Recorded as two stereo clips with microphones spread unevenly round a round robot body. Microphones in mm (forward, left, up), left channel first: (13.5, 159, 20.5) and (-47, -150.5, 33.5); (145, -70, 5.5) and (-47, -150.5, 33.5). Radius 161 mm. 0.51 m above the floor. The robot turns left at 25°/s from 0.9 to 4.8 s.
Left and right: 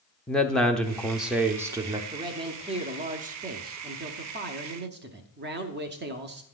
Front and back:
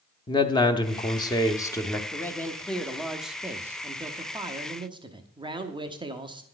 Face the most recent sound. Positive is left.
turn(degrees=-95)